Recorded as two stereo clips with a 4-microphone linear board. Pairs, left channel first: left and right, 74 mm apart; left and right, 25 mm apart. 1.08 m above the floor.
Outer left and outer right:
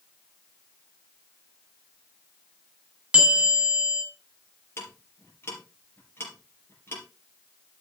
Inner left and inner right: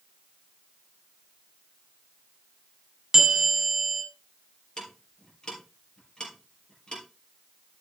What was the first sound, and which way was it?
A bell, 10° right (ahead or behind).